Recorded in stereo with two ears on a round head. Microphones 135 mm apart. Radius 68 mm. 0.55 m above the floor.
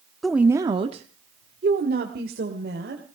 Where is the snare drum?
No snare drum in this recording.